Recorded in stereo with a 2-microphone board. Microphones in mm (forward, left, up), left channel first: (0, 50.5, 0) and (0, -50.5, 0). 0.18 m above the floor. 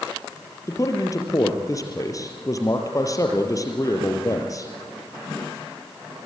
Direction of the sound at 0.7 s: 35° left (ahead or behind).